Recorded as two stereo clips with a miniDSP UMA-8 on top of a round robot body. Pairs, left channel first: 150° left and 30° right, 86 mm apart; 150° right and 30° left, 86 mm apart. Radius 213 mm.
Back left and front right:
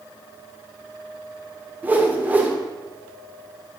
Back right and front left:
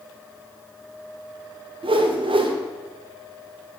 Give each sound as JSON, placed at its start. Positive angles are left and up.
{"t": 1.8, "sound": "a whoosh", "azimuth_deg": 40, "distance_m": 0.8}